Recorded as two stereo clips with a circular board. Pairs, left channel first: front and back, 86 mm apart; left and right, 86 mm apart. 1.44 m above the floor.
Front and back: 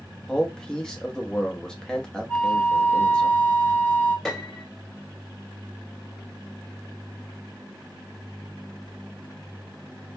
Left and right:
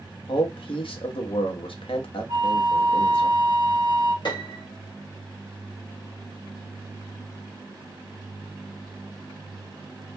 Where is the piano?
85° left, 1.1 m.